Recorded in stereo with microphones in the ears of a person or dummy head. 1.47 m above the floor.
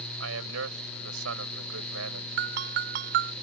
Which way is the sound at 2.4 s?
50° right (ahead or behind).